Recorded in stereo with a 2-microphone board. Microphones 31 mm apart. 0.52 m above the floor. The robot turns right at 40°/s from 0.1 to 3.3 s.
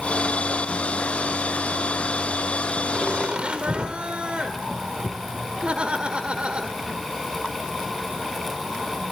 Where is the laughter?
25° right (ahead or behind), 1.7 m; by 7.0 s 35° right (ahead or behind), 1.7 m.